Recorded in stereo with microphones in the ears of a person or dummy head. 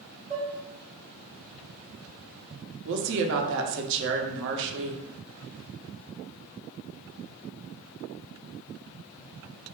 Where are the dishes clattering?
35° right (ahead or behind), 1.4 m.